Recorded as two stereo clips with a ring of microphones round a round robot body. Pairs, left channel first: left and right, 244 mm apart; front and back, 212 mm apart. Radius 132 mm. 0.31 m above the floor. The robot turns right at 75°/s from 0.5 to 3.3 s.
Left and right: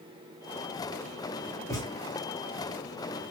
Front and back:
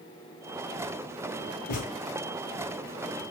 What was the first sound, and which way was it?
A thud, 10° left.